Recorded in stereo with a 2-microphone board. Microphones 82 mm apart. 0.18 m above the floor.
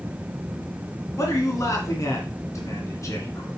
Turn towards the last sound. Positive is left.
turn(degrees=40)  # may be behind; listen again after turning